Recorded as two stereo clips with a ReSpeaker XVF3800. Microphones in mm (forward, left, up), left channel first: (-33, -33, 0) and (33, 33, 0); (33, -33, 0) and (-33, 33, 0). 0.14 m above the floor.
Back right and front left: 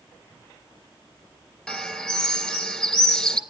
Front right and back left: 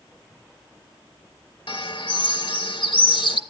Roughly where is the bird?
Ahead right.